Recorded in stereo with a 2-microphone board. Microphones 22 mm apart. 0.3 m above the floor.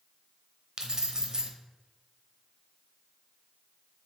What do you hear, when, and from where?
0.8 s keys jangling: 30° right (ahead or behind), 0.8 m